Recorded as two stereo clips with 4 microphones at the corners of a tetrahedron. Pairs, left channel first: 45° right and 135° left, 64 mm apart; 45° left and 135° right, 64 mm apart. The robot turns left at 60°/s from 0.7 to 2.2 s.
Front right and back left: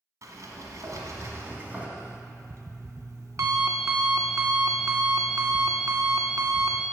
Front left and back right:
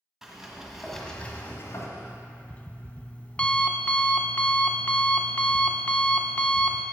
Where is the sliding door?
140° left, 1.5 m; by 1.9 s 70° left, 1.5 m.